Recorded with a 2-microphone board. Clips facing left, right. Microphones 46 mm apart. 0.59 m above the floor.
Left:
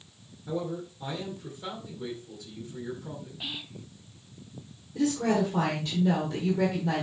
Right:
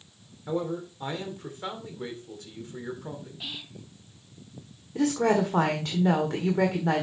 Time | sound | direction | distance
0.5 | a man speaking | 50° right (ahead or behind) | 2 m
3.4 | whispering | 10° left (ahead or behind) | 0.9 m
5.0 | a woman speaking | 60° right (ahead or behind) | 1.5 m